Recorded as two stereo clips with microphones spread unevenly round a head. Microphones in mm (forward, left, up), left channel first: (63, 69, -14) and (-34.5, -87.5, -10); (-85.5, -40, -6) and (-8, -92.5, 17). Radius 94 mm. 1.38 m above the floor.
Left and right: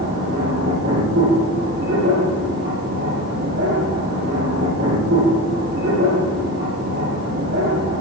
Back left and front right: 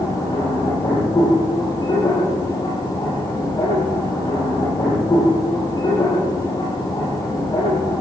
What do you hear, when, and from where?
0.0 s a machine running: 165° right, 8.5 m